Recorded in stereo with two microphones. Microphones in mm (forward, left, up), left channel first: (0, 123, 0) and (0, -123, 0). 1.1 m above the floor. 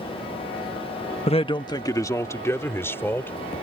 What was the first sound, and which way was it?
A man speaking, 25° left (ahead or behind).